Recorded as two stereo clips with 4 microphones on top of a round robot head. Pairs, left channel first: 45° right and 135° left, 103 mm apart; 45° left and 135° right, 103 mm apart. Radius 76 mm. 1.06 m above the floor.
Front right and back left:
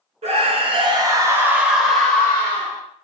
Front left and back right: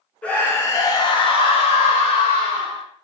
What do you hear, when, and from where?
0.2 s a scream: 120° left, 0.8 m; by 2.8 s 25° left, 1.1 m